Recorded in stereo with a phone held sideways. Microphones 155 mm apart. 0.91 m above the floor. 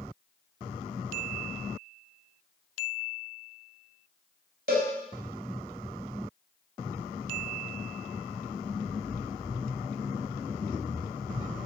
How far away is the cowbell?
About 3 m.